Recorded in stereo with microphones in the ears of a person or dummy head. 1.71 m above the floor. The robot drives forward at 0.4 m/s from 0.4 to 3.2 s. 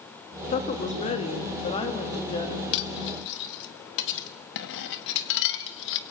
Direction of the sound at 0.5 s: 50° left (ahead or behind).